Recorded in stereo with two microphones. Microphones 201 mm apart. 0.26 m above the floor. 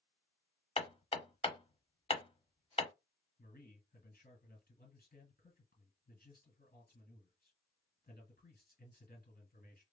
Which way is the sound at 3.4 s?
50° left (ahead or behind).